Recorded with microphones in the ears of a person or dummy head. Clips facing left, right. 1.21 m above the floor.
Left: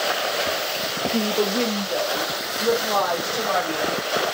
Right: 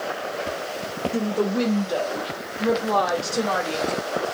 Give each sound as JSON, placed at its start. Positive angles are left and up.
{"t": 1.1, "sound": "a woman speaking", "side_deg": -10, "distance_m": 0.7}